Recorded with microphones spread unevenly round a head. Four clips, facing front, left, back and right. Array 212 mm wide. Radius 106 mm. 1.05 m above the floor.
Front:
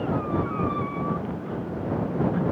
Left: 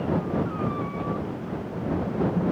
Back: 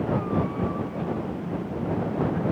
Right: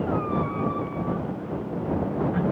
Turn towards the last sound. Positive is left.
No sound to turn to.